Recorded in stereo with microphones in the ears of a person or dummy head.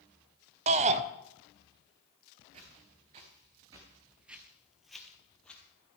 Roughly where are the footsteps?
Right.